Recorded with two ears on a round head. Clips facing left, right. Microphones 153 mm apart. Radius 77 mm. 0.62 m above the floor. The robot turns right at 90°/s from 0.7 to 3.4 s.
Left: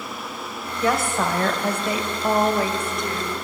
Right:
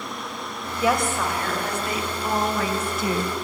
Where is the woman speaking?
15° right, 2.5 m; by 3.4 s 140° right, 2.5 m.